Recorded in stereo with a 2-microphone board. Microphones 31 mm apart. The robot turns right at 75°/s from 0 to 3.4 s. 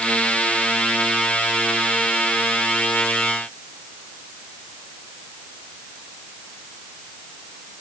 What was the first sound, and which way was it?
Only background noise.